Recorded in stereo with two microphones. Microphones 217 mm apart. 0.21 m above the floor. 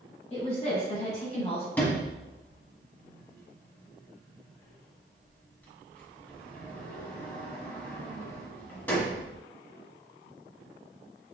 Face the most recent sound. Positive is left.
turn(degrees=10)  # may be behind; listen again after turning